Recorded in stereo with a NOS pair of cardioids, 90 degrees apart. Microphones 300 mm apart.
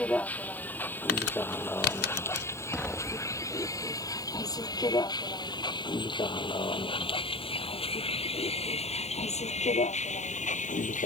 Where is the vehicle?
5° left; by 11.1 s 25° left.